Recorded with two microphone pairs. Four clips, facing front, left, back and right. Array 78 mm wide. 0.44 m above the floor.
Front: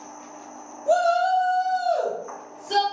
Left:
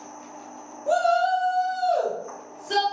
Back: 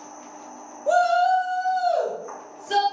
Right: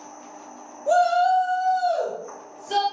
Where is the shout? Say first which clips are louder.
Right 2 dB, back 1 dB; 170° left, 1.7 m; by 2.8 s 125° left, 1.9 m.